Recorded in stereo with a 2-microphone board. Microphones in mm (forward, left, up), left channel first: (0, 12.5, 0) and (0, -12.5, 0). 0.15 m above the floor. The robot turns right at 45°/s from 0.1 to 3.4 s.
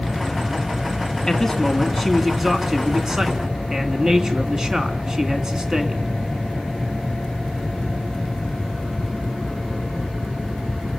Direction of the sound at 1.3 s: 15° left (ahead or behind).